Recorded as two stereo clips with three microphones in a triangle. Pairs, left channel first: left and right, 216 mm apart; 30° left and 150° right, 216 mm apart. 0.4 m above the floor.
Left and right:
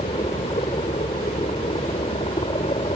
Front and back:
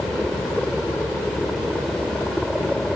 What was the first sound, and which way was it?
A helicopter, 115° left.